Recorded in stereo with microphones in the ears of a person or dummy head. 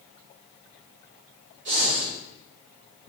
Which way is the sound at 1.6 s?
65° right (ahead or behind).